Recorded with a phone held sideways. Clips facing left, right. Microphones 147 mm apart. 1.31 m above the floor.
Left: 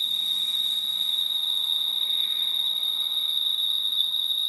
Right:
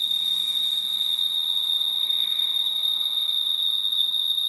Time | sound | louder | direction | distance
0.0 | an insect | right 2 dB | 5° left (ahead or behind) | 1.4 m